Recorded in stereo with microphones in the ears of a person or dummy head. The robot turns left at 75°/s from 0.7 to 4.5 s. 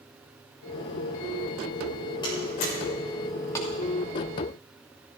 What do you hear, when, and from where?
2.2 s a door slam: 20° left (ahead or behind), 5.5 m; by 2.7 s 55° left (ahead or behind), 5.5 m
3.5 s a clap: 10° left (ahead or behind), 2.5 m; by 3.7 s 20° left (ahead or behind), 2.5 m